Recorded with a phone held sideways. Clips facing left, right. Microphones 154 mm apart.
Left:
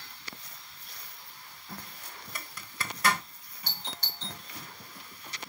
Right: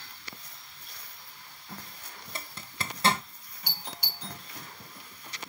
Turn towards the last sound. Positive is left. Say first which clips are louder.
# even
turn(degrees=-10)  # may be behind; listen again after turning